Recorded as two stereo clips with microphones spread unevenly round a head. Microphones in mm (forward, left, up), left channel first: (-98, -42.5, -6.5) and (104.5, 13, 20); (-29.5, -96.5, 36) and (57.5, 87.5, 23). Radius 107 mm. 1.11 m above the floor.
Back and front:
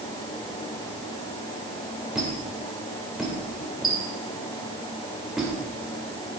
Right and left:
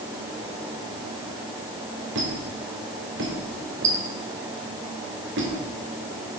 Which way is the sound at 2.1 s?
105° left.